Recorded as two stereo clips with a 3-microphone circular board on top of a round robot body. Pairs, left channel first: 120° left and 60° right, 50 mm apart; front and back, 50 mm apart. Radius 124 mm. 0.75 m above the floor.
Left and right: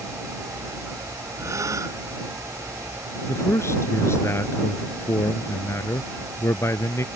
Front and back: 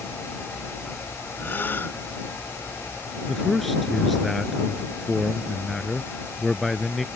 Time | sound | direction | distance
1.4 | a gasp | 50° right | ?
3.3 | a man speaking | 85° left | ?